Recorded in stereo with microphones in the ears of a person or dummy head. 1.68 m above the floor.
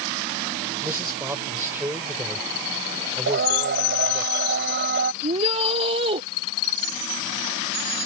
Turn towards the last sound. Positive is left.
turn(degrees=-30)  # may be behind; listen again after turning